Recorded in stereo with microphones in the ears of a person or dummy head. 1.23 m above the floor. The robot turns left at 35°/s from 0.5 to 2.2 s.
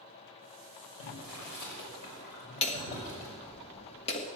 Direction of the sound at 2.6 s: 30° left (ahead or behind).